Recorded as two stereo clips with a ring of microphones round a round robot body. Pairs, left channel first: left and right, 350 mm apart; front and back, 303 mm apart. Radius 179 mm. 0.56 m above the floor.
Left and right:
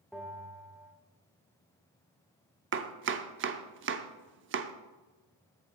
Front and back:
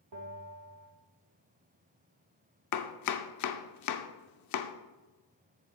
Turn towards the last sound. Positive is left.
turn(degrees=-35)